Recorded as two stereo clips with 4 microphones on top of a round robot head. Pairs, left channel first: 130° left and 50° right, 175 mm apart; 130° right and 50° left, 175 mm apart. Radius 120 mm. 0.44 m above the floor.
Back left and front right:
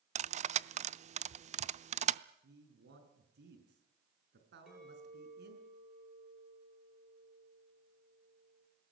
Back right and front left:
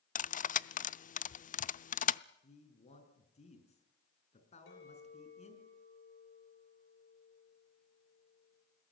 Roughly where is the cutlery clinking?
Right.